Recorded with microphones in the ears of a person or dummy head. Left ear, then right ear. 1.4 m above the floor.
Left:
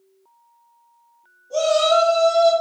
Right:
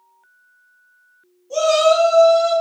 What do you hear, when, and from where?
1.5 s a shout: 40° right (ahead or behind), 1.0 m; by 2.5 s 25° left (ahead or behind), 1.0 m